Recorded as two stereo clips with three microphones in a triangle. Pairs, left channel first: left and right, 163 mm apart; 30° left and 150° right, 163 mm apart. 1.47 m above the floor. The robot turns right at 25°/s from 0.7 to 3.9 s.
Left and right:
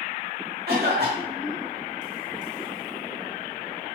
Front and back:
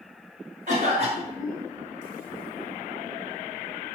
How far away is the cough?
About 0.9 m.